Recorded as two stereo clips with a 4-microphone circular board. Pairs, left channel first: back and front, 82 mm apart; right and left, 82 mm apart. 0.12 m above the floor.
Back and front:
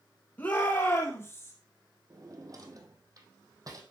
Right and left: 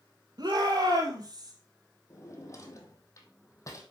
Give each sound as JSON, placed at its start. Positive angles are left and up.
{"t": 0.4, "sound": "a shout", "azimuth_deg": 115, "distance_m": 3.0}
{"t": 2.1, "sound": "a drawer", "azimuth_deg": -40, "distance_m": 1.7}